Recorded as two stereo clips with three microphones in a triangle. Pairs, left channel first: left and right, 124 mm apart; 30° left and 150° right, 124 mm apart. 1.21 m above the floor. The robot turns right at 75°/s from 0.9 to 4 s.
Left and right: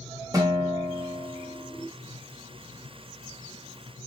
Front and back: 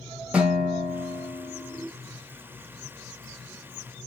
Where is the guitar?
80° right, 1.1 m; by 1.9 s 10° right, 1.1 m.